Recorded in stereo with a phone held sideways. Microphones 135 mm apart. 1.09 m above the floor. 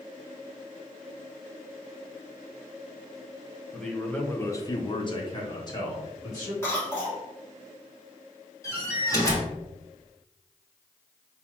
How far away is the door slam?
About 1.2 m.